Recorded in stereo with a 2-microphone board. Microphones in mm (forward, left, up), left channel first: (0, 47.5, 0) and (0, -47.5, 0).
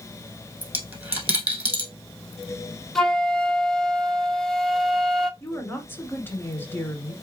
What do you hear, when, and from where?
0.6 s a dropped coin: 15° right (ahead or behind), 2 m
3.0 s a flute: 5° left (ahead or behind), 0.5 m
5.4 s a woman speaking: 20° left (ahead or behind), 1.4 m